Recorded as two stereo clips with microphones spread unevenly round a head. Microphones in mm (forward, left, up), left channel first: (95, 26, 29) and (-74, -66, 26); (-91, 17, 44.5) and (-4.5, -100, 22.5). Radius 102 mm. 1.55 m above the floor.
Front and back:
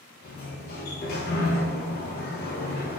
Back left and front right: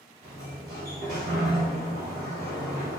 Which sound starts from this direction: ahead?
A sliding door, at 0.2 s.